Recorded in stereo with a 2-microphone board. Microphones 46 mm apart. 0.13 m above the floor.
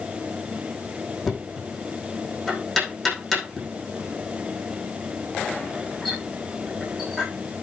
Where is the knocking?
Centre (ahead or behind), 7.5 m.